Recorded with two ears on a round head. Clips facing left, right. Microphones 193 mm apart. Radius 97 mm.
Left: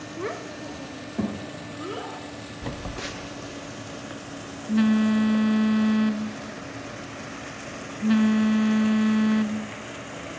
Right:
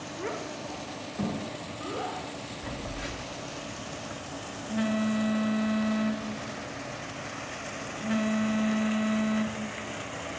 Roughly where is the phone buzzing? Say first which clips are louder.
Left 4 dB; left.